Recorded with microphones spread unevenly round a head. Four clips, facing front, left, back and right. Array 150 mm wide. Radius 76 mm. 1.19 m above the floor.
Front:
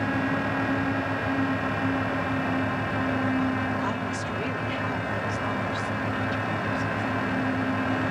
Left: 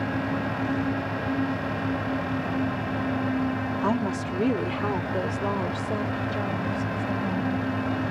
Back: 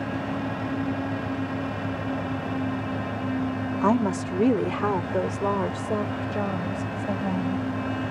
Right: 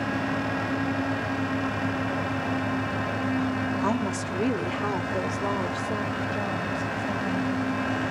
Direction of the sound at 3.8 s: 175° left.